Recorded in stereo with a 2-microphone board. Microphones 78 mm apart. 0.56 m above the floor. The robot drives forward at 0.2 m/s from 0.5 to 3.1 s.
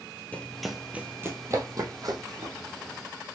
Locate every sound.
0.3 s running footsteps: 20° left (ahead or behind), 0.9 m; by 2.5 s 55° right (ahead or behind), 1.9 m